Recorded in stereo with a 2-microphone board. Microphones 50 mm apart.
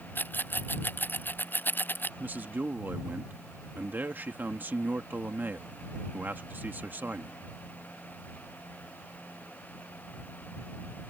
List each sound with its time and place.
0.1 s a rattle: 40° left (ahead or behind)
2.2 s a man speaking: 35° right (ahead or behind)